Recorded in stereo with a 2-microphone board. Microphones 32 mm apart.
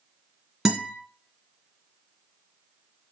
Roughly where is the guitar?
Centre.